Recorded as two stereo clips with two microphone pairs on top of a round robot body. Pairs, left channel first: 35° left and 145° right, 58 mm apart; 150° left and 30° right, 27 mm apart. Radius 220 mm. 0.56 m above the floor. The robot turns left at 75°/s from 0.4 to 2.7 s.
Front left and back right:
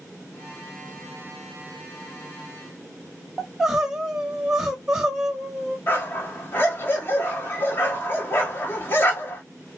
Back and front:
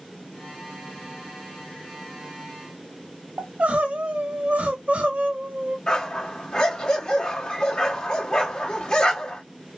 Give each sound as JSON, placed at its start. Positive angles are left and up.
{"t": 3.4, "sound": "crying", "azimuth_deg": -65, "distance_m": 1.2}
{"t": 5.9, "sound": "a dog barking", "azimuth_deg": 90, "distance_m": 1.8}